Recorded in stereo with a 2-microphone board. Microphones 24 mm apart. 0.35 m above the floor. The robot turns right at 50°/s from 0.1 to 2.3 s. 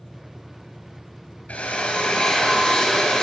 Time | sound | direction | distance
1.5 | a drill | 110° left | 3.5 m